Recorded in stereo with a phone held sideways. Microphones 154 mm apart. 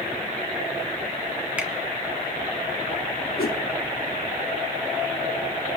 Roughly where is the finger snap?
Centre.